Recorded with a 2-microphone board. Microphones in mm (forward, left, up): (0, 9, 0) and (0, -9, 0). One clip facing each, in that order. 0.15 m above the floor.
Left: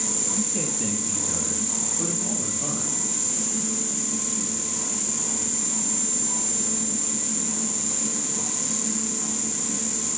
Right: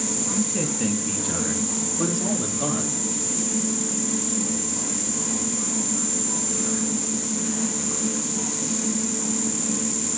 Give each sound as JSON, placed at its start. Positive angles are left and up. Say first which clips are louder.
{"t": 0.3, "sound": "a man speaking", "louder": "right 3 dB", "side_deg": -10, "distance_m": 2.0}